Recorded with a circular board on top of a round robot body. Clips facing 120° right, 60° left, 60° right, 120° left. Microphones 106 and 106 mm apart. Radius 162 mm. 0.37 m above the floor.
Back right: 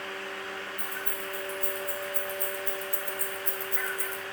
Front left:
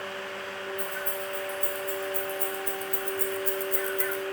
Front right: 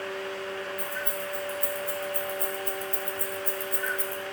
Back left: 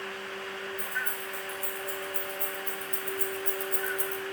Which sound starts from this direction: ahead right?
Keys jangling, at 0.8 s.